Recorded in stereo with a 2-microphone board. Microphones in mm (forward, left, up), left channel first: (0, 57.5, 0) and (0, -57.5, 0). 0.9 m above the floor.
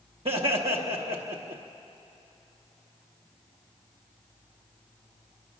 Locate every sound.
0.2 s laughter: 55° right (ahead or behind), 1.0 m